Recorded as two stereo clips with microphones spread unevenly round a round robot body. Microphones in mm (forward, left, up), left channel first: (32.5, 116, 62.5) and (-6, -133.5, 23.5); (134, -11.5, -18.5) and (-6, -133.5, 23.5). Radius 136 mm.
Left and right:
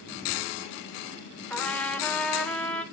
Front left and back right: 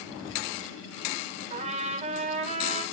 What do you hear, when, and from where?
1.5 s a trumpet: 165° left, 0.9 m